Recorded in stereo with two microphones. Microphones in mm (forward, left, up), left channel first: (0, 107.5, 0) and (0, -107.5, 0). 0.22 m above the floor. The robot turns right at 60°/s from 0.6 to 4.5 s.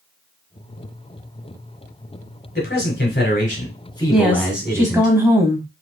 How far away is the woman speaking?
About 1.0 m.